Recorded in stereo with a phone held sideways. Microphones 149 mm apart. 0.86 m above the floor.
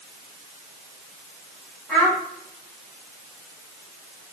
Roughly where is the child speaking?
Centre.